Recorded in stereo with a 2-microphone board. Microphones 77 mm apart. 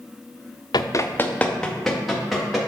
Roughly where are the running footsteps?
Left.